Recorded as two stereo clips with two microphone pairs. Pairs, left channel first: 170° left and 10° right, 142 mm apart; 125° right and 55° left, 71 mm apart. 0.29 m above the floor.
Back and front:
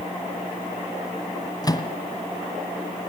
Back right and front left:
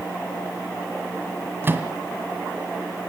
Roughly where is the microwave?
Left.